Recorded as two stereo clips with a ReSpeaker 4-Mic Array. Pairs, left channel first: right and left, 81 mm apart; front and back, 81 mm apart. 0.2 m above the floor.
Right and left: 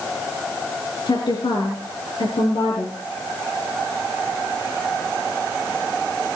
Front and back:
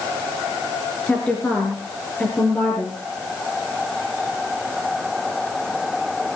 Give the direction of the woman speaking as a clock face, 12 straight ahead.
3 o'clock.